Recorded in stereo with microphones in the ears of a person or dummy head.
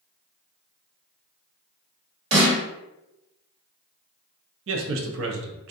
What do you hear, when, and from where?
2.3 s a snare drum: 45° right (ahead or behind), 1.6 m
4.7 s a man speaking: 80° right, 0.5 m